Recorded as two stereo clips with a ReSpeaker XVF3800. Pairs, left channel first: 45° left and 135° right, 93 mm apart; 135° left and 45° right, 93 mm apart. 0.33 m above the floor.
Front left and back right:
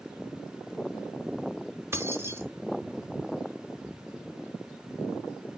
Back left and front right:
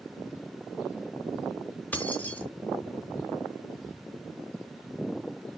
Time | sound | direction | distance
1.9 | keys jangling | 165° right | 0.7 m